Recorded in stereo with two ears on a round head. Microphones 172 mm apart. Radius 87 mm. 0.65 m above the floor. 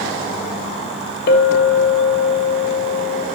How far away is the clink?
About 0.9 m.